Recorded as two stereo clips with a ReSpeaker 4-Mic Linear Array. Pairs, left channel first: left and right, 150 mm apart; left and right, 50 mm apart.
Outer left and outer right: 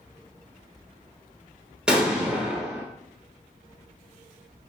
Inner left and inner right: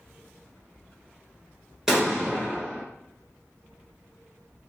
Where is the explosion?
5° right (ahead or behind), 1.1 m.